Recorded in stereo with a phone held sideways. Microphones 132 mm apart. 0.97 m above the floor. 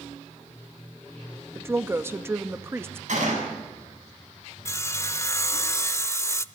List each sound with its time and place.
1.6 s a woman speaking: 20° right (ahead or behind), 0.9 m
3.1 s a gunshot: 65° right (ahead or behind), 8.5 m
4.7 s sawing: 20° left (ahead or behind), 0.7 m